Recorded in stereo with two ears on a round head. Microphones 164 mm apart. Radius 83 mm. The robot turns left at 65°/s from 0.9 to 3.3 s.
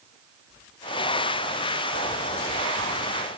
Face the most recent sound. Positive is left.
No sound to turn to.